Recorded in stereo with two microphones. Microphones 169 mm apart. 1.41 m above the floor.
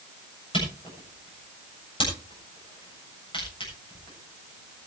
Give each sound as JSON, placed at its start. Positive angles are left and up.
{"t": 0.5, "sound": "a camera shutter", "side_deg": 30, "distance_m": 7.5}